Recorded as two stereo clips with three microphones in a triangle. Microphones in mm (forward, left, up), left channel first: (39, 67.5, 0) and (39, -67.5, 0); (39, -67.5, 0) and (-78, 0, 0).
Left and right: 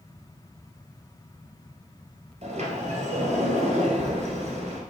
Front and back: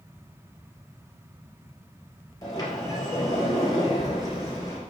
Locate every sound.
2.4 s a sliding door: 85° right, 2.5 m